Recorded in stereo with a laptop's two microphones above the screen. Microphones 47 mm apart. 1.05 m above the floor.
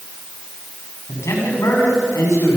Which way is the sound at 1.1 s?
85° left.